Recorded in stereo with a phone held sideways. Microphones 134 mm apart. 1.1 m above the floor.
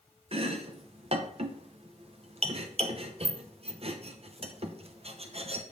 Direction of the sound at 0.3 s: 50° right (ahead or behind).